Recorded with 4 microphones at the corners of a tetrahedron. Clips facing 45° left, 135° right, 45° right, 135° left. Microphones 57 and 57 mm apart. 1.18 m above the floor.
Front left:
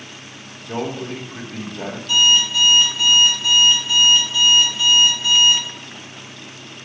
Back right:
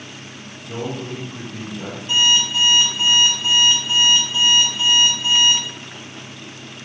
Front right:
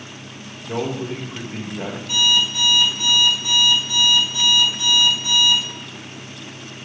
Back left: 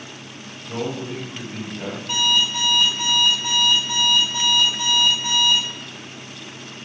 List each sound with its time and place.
0.7 s a man speaking: straight ahead, 1.3 m
2.1 s an alarm clock: 170° left, 2.5 m